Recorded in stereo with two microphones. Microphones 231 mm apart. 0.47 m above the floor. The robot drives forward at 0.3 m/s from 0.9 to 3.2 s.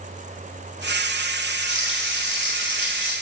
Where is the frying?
25° left (ahead or behind), 1.4 m; by 3.1 s 20° left (ahead or behind), 1.7 m.